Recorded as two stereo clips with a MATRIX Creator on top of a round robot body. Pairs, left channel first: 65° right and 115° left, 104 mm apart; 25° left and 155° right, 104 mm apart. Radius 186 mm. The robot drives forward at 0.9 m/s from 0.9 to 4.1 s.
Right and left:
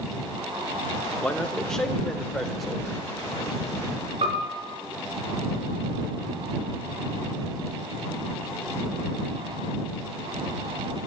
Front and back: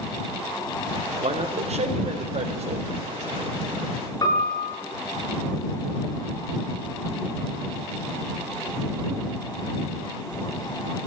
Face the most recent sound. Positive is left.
turn(degrees=75)